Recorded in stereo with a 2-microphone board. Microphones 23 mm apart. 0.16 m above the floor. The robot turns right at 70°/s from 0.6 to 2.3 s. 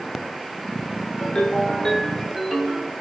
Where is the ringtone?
110° left, 1.0 m; by 2.9 s 175° right, 1.0 m.